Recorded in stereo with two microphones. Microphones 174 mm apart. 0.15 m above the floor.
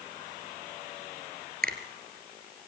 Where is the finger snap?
60° right (ahead or behind), 2.5 m.